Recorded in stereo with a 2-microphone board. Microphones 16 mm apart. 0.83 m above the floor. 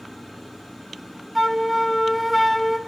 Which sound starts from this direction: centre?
A flute, at 1.4 s.